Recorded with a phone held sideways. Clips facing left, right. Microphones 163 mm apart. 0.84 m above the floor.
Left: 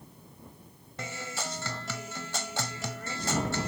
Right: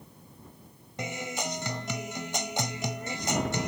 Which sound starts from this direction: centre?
A guitar, at 1.0 s.